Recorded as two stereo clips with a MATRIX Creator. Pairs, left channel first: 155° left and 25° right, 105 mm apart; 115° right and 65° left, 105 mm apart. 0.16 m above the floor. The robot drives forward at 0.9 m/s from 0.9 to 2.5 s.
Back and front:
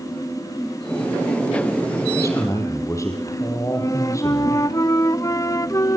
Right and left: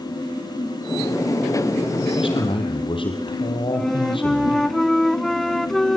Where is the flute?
165° left, 0.7 m.